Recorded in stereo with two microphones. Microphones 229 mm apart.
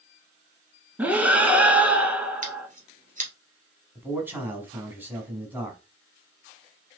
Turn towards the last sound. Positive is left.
turn(degrees=-10)  # may be behind; listen again after turning